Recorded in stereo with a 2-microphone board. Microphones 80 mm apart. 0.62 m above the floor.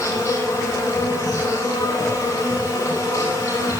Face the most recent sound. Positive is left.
turn(degrees=40)  # may be behind; listen again after turning